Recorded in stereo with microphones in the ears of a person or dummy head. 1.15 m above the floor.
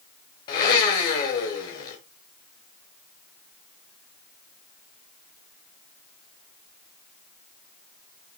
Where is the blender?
35° left (ahead or behind), 1.1 m.